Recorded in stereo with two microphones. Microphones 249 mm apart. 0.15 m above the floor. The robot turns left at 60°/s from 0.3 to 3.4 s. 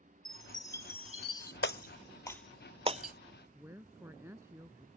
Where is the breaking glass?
50° left (ahead or behind); by 3.1 s 40° right (ahead or behind).